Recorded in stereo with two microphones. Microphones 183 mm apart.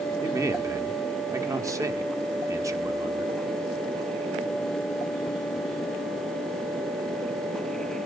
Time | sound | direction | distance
0.2 | a man speaking | 20° right (ahead or behind) | 1.0 m